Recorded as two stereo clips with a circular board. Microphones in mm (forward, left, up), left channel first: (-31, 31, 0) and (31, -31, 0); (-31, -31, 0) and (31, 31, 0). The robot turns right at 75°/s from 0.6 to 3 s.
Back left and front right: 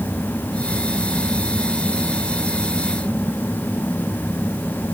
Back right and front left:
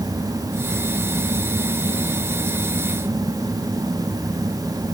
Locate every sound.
Only background noise.